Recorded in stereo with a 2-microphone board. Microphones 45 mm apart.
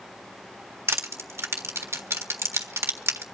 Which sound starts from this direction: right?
Crushing, at 0.9 s.